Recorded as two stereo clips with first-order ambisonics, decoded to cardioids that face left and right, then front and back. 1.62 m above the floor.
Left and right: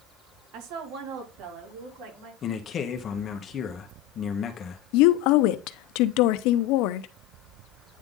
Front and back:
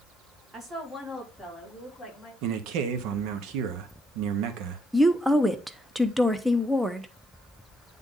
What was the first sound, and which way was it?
A woman speaking, 110° right.